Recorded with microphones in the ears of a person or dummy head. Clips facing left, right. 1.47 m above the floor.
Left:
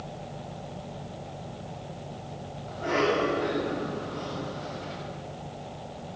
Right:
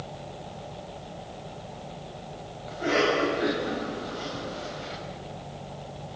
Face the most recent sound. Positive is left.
turn(degrees=-15)  # may be behind; listen again after turning